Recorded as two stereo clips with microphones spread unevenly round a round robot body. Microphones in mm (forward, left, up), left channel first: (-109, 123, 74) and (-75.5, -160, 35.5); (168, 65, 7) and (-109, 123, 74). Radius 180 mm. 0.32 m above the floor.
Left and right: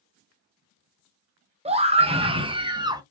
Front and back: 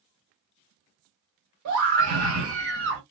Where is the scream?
145° right, 1.7 m; by 3.0 s 140° right, 1.1 m.